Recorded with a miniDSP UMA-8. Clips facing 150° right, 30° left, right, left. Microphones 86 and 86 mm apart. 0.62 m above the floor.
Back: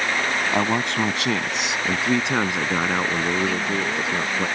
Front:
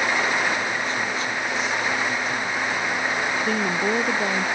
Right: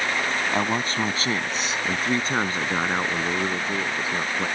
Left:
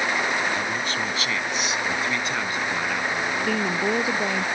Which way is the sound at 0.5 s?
145° right.